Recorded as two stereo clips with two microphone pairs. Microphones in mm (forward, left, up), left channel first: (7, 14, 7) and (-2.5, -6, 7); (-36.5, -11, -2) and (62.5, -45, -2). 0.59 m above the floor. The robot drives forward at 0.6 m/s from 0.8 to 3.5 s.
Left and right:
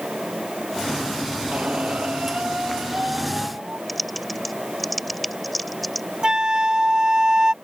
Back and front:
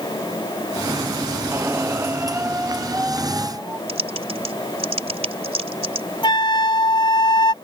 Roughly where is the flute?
Behind.